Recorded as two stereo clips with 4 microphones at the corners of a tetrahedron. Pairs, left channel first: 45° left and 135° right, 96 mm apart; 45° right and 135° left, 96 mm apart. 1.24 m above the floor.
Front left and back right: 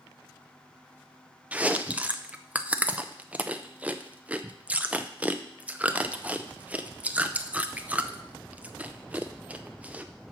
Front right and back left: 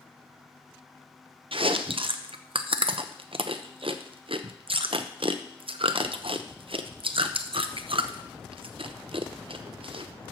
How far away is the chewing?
About 0.7 m.